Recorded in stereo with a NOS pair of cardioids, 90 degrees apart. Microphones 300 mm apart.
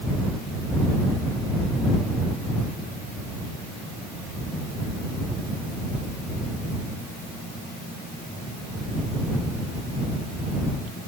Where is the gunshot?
I don't hear a gunshot.